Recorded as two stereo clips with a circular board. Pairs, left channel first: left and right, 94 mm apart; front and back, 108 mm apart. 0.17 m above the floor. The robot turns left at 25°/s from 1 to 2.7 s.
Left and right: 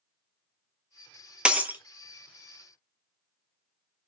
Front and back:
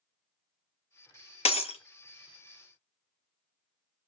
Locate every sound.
1.4 s breaking glass: 10° right, 0.6 m; by 1.8 s 20° right, 0.6 m